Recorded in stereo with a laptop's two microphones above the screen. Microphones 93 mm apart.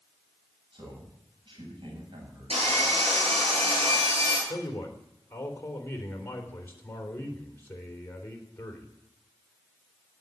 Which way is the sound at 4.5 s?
20° left (ahead or behind).